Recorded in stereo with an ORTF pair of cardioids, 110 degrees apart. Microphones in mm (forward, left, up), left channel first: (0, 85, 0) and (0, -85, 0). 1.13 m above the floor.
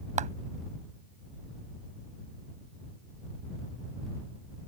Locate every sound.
0.2 s a clap: 45° right